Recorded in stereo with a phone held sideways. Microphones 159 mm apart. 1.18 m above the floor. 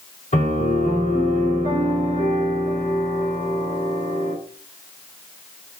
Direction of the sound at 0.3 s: 50° left (ahead or behind).